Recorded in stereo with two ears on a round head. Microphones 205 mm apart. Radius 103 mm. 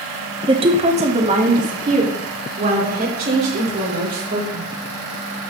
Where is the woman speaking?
20° right (ahead or behind), 1.0 m; by 4.7 s 45° right (ahead or behind), 3 m.